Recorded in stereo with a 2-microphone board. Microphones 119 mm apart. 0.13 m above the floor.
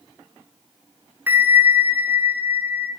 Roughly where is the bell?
Centre.